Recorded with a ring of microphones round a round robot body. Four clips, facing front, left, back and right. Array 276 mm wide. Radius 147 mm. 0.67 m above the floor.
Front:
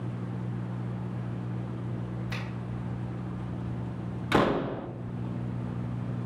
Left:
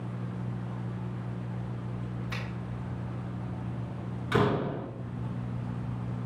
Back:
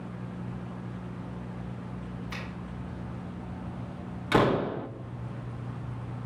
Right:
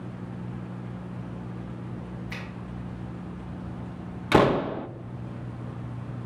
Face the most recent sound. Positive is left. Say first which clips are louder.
# right 6 dB, back 1 dB
turn(degrees=-90)